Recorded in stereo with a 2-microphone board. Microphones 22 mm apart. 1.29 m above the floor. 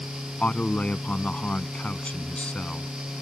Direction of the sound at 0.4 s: 65° left (ahead or behind).